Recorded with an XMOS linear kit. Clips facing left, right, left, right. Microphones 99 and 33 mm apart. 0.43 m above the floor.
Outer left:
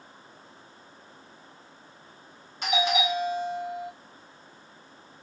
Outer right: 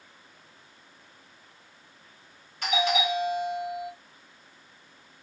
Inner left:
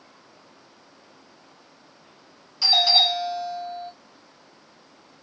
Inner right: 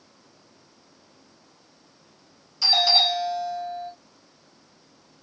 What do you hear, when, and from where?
2.6 s a doorbell: 20° left (ahead or behind), 1.3 m